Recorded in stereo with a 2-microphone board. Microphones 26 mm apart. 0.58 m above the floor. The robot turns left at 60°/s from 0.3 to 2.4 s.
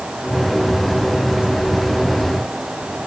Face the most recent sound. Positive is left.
No sound to turn to.